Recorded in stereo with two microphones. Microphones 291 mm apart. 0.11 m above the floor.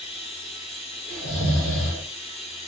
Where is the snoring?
Centre (ahead or behind), 2 m.